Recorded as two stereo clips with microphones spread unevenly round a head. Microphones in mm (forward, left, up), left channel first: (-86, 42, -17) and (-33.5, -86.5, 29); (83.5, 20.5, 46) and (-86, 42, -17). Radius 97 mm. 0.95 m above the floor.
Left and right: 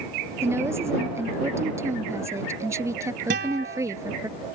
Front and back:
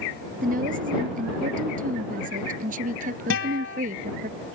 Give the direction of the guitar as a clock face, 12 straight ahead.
1 o'clock.